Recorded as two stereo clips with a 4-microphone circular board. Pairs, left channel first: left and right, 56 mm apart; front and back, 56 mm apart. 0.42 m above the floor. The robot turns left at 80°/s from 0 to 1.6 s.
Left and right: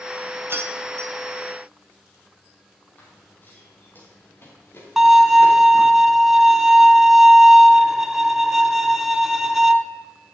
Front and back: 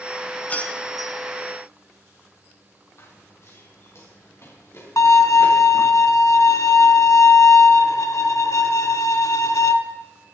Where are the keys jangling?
50° right, 1.6 m; by 1.1 s 105° right, 1.6 m.